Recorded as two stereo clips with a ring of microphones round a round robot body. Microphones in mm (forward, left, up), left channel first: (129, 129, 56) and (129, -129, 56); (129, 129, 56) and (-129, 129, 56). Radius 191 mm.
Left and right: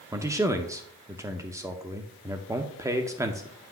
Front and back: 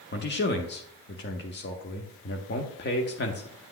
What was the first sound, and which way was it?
A man speaking, 15° right.